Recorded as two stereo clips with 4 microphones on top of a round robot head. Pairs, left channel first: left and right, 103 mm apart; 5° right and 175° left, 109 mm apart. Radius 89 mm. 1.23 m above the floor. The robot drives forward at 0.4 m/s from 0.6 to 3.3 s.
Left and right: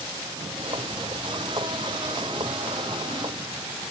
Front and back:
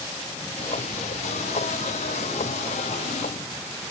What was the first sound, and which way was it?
Only background noise.